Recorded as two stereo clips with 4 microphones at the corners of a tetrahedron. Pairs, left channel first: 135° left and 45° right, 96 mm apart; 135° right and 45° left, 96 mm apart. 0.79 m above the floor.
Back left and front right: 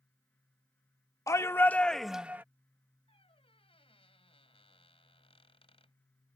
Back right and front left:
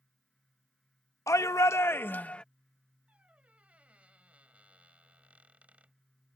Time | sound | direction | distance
1.3 | a shout | straight behind | ?
3.1 | a squeak | 120° left | ?